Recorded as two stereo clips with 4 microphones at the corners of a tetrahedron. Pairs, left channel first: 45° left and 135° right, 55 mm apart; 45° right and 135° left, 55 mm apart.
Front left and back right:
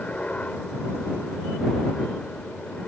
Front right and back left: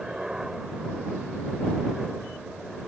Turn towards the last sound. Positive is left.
turn(degrees=65)